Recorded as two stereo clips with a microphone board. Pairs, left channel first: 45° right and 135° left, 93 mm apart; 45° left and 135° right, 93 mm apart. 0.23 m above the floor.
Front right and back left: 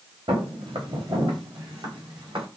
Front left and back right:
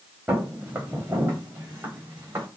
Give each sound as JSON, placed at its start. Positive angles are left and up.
{"t": 0.3, "sound": "footsteps", "azimuth_deg": 155, "distance_m": 2.5}